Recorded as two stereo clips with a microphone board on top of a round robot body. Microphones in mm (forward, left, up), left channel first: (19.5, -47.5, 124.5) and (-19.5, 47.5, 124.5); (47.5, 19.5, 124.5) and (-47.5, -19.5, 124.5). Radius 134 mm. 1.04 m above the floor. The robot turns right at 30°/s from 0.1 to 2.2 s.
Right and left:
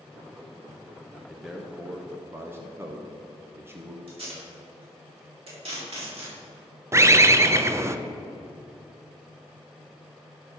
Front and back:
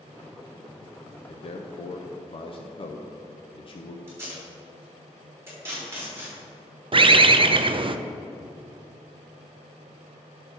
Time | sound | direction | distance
1.3 | a man speaking | 20° left | 0.9 m
4.1 | tape being pulled | 135° left | 4 m
6.9 | a bird | 175° left | 0.6 m